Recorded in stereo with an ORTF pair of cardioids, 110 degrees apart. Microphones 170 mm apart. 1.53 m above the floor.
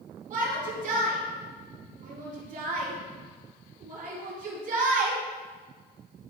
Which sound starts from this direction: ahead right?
A shout, at 0.3 s.